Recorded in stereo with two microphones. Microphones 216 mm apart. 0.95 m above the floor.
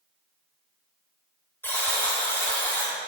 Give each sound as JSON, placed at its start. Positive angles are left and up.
{"t": 1.6, "sound": "a buzzer", "side_deg": 10, "distance_m": 0.7}